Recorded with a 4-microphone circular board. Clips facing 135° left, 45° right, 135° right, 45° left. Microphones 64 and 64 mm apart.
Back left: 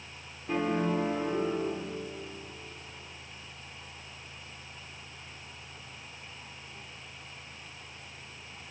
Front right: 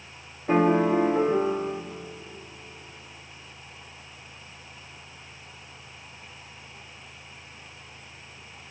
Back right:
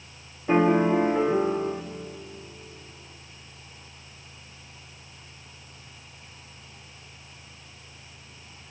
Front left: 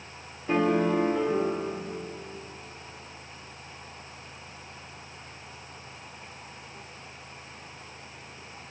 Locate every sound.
0.5 s a piano: 75° right, 0.8 m